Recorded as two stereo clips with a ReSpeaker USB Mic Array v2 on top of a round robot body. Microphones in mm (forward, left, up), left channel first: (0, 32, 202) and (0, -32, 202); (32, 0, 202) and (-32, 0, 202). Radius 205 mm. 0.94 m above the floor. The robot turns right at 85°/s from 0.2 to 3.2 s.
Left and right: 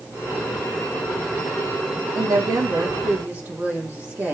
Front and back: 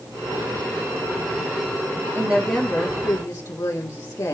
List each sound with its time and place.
2.1 s a woman speaking: 125° right, 2.5 m; by 4.3 s 35° right, 2.5 m